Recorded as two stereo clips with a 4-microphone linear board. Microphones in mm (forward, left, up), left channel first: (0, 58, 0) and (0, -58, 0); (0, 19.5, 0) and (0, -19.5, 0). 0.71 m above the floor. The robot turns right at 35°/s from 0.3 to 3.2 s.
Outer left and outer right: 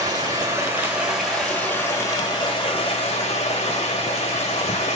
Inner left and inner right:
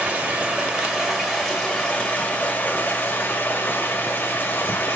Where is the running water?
35° right, 2.0 m; by 5.0 s 70° left, 2.0 m.